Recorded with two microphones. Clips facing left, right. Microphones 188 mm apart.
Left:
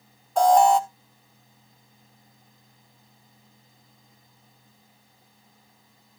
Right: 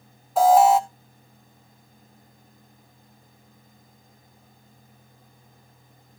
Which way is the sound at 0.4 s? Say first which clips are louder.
Right 2 dB; 5° right (ahead or behind).